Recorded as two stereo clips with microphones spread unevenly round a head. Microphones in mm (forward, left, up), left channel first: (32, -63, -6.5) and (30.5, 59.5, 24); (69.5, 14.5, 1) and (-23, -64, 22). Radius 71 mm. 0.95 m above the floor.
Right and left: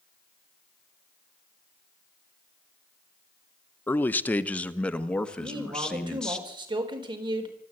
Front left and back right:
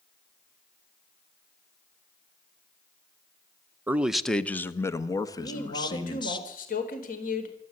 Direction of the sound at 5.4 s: 35° left.